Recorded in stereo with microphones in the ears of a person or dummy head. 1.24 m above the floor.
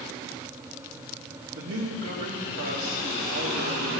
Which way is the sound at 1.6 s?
55° right (ahead or behind).